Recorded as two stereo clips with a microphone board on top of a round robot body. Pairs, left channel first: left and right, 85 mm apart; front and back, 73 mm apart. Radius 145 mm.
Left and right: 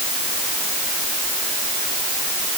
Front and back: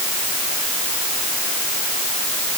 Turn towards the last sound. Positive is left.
No sound to turn to.